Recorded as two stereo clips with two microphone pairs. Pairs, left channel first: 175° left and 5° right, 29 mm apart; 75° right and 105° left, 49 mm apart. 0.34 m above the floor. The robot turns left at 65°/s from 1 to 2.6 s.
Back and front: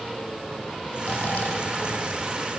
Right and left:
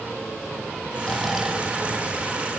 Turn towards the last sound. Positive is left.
turn(degrees=110)